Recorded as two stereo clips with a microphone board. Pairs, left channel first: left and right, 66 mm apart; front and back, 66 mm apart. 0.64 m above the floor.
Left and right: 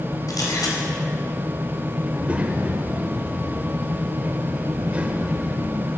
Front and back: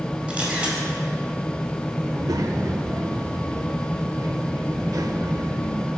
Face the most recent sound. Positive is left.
turn(degrees=-160)